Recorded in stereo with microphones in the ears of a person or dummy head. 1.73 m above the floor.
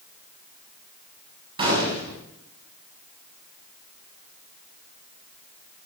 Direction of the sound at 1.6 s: 25° right (ahead or behind).